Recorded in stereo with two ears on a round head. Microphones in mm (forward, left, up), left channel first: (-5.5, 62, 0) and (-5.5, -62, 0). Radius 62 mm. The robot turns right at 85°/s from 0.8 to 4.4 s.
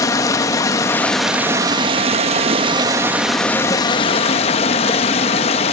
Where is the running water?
145° left, 0.9 m; by 5.7 s 90° left, 0.9 m.